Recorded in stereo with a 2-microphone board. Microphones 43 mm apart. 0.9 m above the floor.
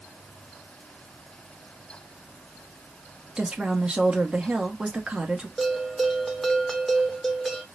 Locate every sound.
3.4 s a woman speaking: 20° right (ahead or behind), 1.1 m
5.6 s a bell: centre (ahead or behind), 0.8 m